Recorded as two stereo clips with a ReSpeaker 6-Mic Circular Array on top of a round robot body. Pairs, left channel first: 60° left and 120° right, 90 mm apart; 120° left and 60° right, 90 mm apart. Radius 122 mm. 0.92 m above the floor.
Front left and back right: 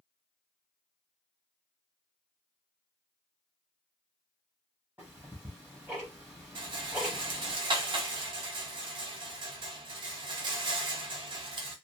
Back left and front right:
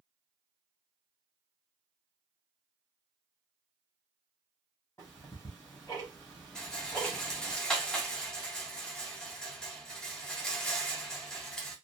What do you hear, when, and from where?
5.0 s ticking: straight behind, 0.8 m
6.5 s a rattle: 155° right, 0.6 m